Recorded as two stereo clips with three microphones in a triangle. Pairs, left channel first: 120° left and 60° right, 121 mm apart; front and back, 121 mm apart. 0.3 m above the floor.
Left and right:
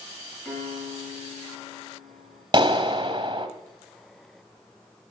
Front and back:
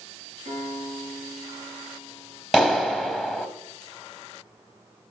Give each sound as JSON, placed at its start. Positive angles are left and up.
{"t": 0.5, "sound": "a piano", "azimuth_deg": -155, "distance_m": 5.0}
{"t": 2.5, "sound": "a clap", "azimuth_deg": -100, "distance_m": 1.6}